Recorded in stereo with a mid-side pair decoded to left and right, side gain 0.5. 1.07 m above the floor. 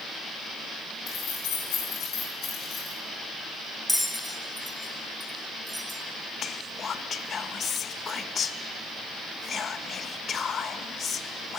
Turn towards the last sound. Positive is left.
turn(degrees=45)